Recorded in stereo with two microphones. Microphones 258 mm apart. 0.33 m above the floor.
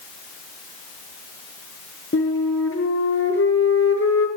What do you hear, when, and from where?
2.1 s a flute: 50° left (ahead or behind), 4.5 m